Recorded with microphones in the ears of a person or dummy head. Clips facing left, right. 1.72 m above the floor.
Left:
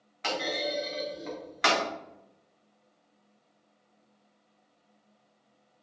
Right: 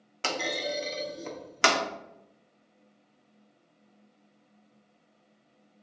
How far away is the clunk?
About 0.7 m.